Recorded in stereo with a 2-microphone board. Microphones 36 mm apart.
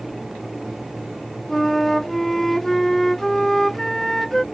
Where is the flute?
10° left (ahead or behind).